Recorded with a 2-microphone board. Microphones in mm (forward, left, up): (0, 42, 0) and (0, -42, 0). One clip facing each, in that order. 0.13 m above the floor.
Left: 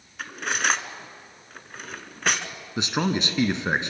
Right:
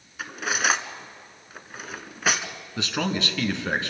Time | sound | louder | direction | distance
0.2 | cutlery clinking | right 1 dB | 5° right (ahead or behind) | 0.9 m
2.8 | a man speaking | left 2 dB | 20° left (ahead or behind) | 1.1 m